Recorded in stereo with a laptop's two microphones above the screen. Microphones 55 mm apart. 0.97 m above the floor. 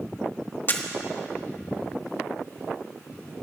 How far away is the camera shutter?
About 1.6 m.